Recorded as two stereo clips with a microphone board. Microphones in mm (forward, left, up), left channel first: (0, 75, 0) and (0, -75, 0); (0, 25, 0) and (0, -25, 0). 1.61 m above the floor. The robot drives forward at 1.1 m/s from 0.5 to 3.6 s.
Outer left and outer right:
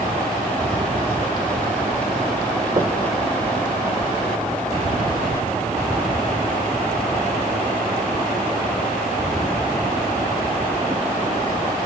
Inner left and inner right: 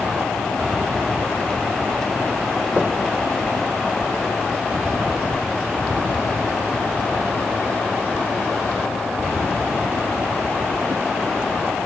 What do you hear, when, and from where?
2.8 s knocking: 30° right (ahead or behind), 1.3 m; by 3.0 s 35° right (ahead or behind), 1.1 m